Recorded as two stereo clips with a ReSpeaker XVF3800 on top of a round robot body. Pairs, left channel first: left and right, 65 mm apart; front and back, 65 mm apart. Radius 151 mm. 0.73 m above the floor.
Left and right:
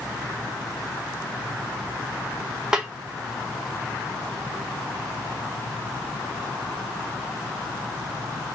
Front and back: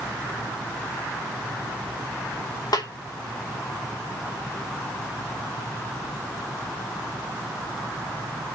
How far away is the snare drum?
About 2.5 m.